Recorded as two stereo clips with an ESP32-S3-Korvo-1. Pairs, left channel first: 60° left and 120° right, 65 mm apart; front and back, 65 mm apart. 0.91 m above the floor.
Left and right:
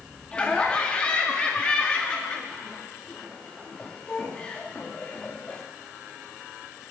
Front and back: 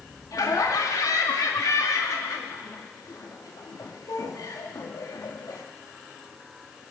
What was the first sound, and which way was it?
Laughter, 10° right.